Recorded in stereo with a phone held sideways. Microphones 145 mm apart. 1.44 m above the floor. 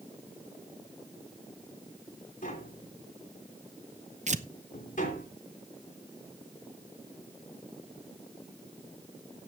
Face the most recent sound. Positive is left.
turn(degrees=-55)  # may be behind; listen again after turning